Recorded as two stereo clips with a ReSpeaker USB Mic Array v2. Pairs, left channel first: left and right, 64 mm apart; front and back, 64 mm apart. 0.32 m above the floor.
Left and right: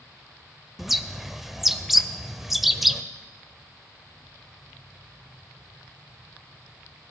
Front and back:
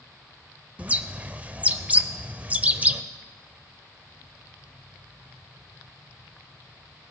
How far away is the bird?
About 0.6 m.